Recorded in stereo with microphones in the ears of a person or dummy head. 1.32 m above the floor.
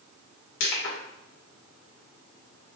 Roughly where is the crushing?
Left.